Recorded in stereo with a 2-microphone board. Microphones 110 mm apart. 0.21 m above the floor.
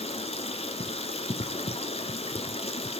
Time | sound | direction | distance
0.0 | running water | 70° left (ahead or behind) | 1.5 m